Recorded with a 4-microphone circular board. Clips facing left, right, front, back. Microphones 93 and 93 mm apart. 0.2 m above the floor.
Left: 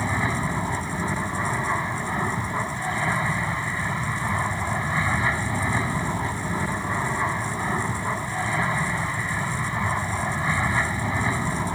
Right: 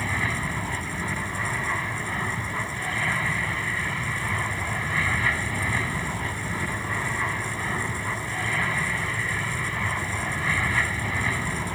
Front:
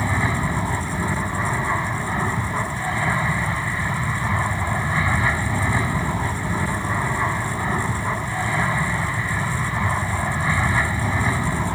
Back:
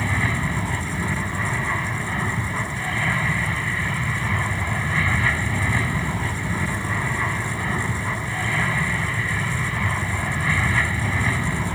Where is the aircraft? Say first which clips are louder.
Left 3 dB, front 2 dB; 45° left.